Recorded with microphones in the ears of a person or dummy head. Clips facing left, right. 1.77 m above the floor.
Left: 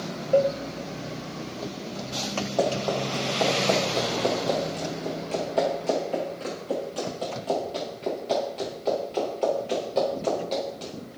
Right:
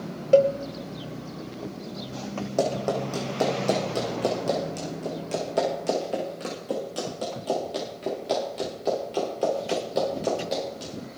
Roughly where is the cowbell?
Right.